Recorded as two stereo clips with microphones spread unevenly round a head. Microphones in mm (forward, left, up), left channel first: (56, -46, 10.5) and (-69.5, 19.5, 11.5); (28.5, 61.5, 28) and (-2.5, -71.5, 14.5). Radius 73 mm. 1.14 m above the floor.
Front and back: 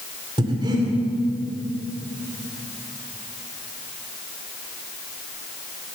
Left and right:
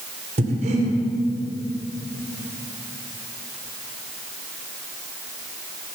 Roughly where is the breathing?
Behind right.